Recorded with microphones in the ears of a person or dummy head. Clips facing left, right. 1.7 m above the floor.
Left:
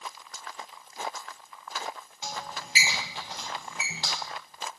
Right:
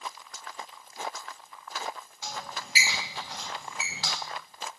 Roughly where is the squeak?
Left.